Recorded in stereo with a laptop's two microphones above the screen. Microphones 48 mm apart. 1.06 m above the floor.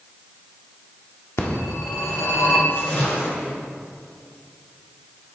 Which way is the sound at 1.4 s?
75° left (ahead or behind).